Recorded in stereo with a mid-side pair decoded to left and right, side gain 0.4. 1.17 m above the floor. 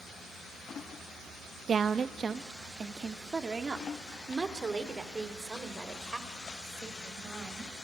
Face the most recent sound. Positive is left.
turn(degrees=-25)